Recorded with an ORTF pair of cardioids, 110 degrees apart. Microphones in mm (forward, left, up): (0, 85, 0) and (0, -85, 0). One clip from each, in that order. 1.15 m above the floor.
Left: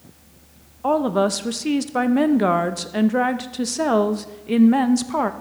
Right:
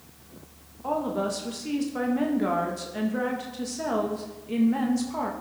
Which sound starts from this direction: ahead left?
A woman speaking, at 0.8 s.